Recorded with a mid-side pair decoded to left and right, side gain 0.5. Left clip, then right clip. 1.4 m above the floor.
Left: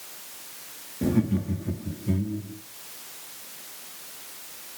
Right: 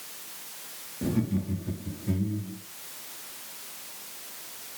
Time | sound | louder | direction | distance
1.0 | laughter | left 4 dB | 35° left | 2.5 m